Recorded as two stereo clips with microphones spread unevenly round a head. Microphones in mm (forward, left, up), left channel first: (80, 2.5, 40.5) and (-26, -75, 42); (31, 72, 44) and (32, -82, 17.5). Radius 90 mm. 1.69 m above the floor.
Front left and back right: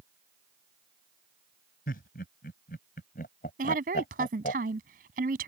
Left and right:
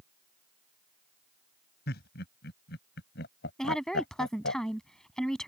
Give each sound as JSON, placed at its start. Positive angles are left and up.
{"t": 1.9, "sound": "laughter", "azimuth_deg": 75}
{"t": 3.6, "sound": "a woman speaking", "azimuth_deg": 175}